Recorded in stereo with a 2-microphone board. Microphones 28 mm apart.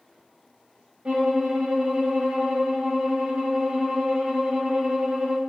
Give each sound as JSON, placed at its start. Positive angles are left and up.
{"t": 1.1, "sound": "a violin", "side_deg": -35, "distance_m": 1.4}